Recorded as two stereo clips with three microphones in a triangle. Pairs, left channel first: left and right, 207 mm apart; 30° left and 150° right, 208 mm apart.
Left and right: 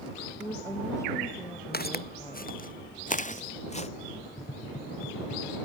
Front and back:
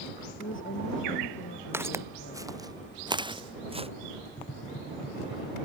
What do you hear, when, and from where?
0.4 s a woman speaking: 15° left
1.7 s footsteps: 130° left; by 3.9 s 150° left
4.4 s tapping: 45° left